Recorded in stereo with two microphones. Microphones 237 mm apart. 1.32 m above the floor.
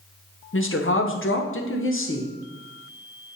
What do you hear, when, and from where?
0.5 s a woman speaking: 60° left (ahead or behind), 0.8 m